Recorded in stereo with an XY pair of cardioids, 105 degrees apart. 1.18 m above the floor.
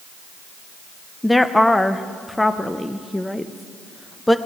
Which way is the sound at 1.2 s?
10° left.